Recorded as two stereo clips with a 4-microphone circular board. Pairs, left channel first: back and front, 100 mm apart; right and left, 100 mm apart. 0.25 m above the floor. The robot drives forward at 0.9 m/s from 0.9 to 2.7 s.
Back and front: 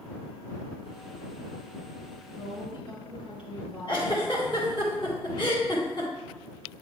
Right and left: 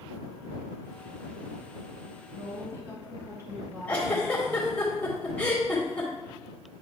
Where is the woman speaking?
145° left, 2.5 m; by 4.7 s 150° left, 2.5 m.